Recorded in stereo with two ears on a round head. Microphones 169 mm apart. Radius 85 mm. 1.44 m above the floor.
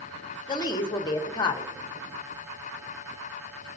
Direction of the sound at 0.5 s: 25° left (ahead or behind).